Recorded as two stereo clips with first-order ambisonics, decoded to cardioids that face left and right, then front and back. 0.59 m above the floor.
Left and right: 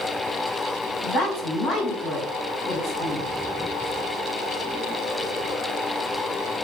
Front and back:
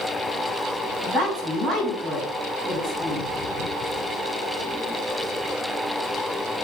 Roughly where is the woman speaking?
Behind left.